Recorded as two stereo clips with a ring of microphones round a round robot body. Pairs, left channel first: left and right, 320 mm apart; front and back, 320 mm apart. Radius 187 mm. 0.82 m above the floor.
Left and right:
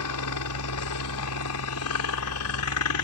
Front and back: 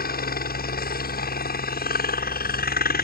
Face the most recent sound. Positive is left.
turn(degrees=55)